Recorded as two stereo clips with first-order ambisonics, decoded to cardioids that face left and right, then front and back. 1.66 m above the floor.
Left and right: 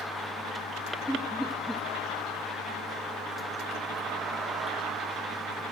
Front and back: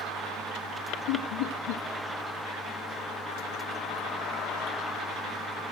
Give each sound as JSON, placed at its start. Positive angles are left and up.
{"t": 1.1, "sound": "laughter", "azimuth_deg": 0, "distance_m": 0.7}